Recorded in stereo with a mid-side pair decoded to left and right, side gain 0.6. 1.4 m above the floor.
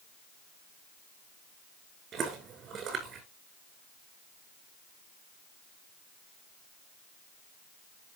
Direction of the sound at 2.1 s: 50° right.